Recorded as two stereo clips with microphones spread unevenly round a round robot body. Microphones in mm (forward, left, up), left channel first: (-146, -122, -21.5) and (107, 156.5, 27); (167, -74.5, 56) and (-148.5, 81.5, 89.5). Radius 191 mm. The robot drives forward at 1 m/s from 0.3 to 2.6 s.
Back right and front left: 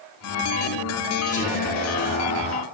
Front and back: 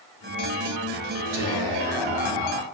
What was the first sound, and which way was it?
Whispering, 155° left.